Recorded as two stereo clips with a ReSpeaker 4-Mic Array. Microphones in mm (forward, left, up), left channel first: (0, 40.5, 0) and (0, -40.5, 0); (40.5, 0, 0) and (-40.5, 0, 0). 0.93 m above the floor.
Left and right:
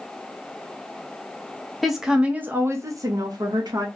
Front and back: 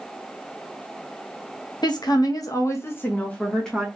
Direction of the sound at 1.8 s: Straight ahead.